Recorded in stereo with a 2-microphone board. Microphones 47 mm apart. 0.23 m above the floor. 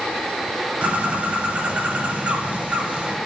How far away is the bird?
About 0.6 m.